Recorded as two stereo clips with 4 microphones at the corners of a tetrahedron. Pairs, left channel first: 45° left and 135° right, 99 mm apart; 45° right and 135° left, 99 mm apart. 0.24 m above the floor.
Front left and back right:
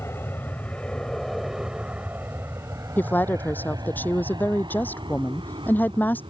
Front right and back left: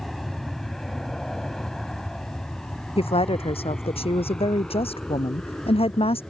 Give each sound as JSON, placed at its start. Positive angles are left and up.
{"t": 0.0, "sound": "an aircraft", "azimuth_deg": 40}
{"t": 3.0, "sound": "a woman speaking", "azimuth_deg": -25}